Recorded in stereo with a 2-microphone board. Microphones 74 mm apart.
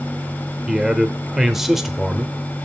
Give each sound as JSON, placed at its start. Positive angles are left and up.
{"t": 0.7, "sound": "a man speaking", "side_deg": -5, "distance_m": 0.8}